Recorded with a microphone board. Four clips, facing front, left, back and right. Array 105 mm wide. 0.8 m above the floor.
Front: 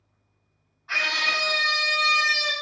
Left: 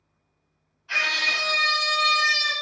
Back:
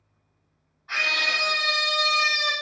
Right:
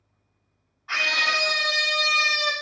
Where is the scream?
90° right, 1.9 m; by 2.5 s 135° right, 0.8 m.